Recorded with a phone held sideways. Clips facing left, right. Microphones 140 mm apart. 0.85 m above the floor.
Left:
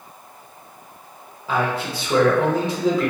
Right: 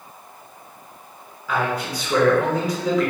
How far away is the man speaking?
About 0.8 m.